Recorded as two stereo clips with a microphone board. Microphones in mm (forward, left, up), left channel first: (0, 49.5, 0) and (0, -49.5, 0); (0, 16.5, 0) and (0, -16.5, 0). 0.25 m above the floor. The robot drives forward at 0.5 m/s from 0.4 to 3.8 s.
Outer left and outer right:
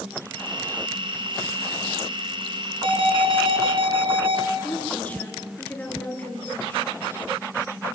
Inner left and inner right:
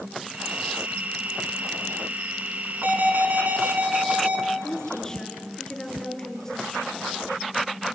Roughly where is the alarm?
Right.